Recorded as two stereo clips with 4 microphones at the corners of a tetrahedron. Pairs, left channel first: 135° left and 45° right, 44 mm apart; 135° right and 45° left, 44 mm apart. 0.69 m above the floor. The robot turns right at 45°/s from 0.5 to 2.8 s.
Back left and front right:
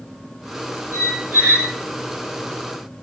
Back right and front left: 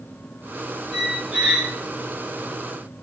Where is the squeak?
50° right, 1.1 m; by 1.7 s 15° right, 1.1 m.